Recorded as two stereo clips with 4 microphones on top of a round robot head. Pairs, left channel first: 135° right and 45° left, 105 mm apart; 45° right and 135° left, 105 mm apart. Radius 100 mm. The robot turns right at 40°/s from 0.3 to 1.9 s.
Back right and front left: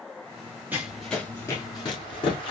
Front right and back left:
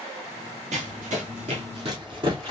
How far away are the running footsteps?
About 0.8 m.